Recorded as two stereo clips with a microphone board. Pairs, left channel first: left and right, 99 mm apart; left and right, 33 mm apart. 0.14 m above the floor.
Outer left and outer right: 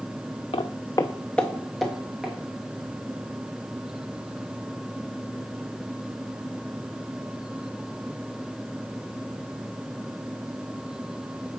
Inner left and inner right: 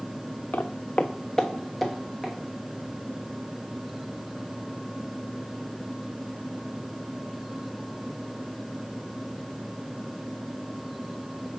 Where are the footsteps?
70° left (ahead or behind), 0.6 m; by 2.3 s 5° right (ahead or behind), 2 m.